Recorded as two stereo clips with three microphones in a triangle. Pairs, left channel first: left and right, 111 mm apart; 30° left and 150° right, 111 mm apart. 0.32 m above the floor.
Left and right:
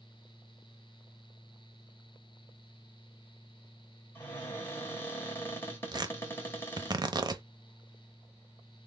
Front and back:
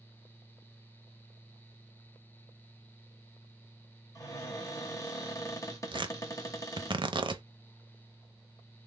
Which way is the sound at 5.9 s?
130° right.